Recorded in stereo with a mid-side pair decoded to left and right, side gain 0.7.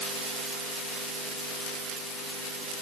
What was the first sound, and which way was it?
Only background noise.